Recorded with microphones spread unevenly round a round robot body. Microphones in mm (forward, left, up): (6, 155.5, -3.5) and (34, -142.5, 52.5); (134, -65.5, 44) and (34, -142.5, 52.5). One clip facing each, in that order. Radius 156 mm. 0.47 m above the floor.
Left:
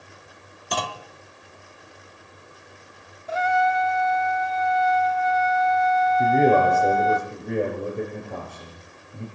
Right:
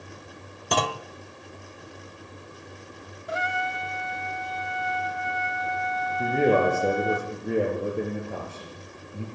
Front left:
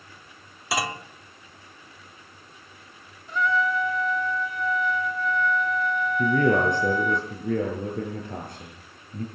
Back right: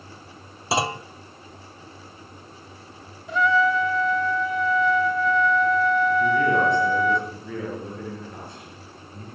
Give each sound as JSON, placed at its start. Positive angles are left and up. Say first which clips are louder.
{"t": 0.7, "sound": "a clunk", "louder": "right 4 dB, back right 4 dB", "azimuth_deg": -85, "distance_m": 1.1}
{"t": 3.3, "sound": "a trumpet", "louder": "left 9 dB, back right 4 dB", "azimuth_deg": -160, "distance_m": 0.6}
{"t": 6.2, "sound": "a man speaking", "louder": "left 1 dB, back right 1 dB", "azimuth_deg": 0, "distance_m": 8.5}